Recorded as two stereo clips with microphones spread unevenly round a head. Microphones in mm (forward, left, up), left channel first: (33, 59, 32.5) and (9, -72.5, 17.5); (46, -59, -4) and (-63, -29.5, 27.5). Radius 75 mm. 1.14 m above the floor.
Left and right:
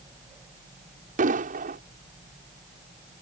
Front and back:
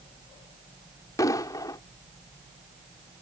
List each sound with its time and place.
1.2 s an explosion: 75° right